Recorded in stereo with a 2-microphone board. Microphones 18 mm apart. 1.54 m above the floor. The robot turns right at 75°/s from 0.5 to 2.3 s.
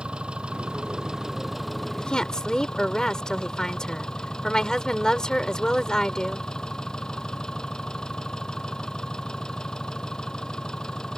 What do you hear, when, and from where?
0.0 s an engine running: 90° right; by 11.2 s 45° left
2.0 s a woman speaking: 65° left (ahead or behind); by 6.5 s 45° left (ahead or behind)